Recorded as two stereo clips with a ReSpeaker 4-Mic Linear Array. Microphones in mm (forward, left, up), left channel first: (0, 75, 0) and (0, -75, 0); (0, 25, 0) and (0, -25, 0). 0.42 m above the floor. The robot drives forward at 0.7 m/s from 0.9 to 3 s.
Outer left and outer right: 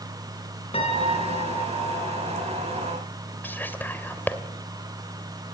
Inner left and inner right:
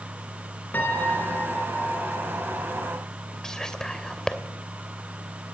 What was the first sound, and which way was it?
A piano, 40° left (ahead or behind).